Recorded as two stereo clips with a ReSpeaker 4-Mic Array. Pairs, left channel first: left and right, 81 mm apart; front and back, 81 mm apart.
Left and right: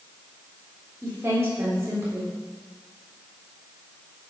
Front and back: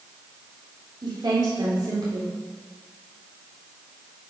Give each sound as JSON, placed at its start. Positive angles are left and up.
{"t": 1.0, "sound": "a woman speaking", "azimuth_deg": -150, "distance_m": 3.5}